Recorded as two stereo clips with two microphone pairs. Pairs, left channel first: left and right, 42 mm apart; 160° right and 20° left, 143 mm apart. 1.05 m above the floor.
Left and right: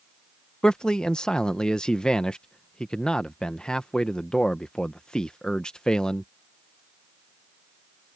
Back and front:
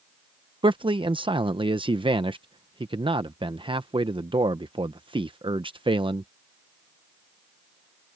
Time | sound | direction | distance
0.6 | a man speaking | 35° left | ?